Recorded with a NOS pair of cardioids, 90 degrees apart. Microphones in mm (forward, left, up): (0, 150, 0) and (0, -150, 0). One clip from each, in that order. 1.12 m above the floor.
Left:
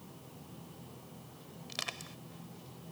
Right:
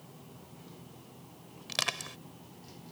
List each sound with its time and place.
1.7 s crushing: 55° right